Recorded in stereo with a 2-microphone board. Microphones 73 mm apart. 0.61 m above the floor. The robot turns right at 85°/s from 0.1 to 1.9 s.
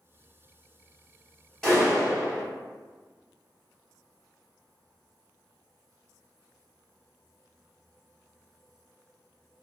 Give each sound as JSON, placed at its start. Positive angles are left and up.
{"t": 1.6, "sound": "a clap", "side_deg": 10, "distance_m": 1.7}